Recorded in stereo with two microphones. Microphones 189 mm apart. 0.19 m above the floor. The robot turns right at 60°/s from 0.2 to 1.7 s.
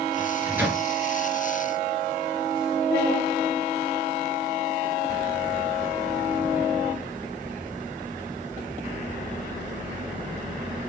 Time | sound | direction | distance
0.2 | a microwave | 30° right (ahead or behind) | 3.5 m